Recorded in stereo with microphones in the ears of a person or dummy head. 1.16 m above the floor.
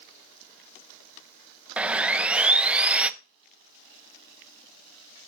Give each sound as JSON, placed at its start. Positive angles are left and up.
{"t": 1.8, "sound": "sawing", "side_deg": -5, "distance_m": 0.5}